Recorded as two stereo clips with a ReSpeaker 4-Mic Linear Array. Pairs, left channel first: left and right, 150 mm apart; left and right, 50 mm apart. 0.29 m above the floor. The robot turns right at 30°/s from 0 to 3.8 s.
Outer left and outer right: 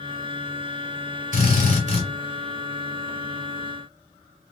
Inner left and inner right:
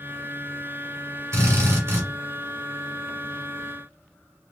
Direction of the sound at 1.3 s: 65° right (ahead or behind).